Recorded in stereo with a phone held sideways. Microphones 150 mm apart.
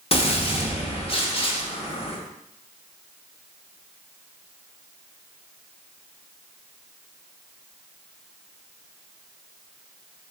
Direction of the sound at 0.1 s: 40° left (ahead or behind).